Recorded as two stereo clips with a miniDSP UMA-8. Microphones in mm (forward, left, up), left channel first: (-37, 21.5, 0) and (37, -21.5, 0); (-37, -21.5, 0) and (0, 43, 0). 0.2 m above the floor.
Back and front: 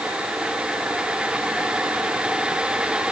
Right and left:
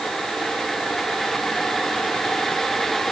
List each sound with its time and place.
Only background noise.